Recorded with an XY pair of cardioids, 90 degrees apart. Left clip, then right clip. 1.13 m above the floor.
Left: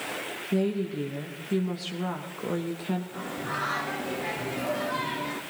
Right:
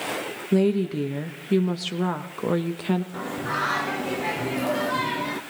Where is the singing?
45° right, 0.9 m.